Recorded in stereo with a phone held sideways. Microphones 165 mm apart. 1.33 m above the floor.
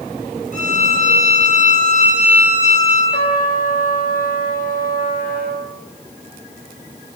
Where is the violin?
50° left (ahead or behind), 9 m.